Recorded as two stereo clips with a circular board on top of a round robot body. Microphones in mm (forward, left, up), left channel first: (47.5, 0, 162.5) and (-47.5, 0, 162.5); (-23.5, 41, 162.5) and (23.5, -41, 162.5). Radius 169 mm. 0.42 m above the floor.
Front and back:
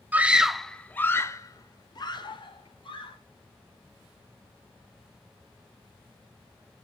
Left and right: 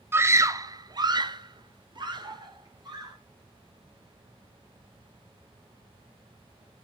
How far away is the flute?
I don't hear a flute.